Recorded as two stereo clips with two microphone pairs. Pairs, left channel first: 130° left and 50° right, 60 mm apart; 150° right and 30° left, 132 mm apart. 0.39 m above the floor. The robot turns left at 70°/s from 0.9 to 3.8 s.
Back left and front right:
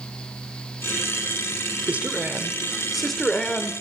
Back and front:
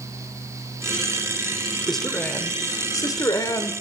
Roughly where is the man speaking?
Ahead right.